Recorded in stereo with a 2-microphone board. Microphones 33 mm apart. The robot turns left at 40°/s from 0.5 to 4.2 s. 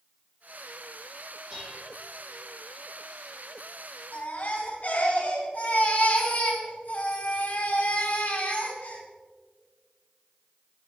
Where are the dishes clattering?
25° right (ahead or behind), 5 m; by 2.0 s 5° right (ahead or behind), 5 m.